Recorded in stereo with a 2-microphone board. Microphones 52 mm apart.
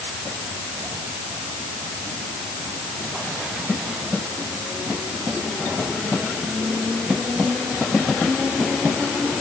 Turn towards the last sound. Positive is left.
No sound to turn to.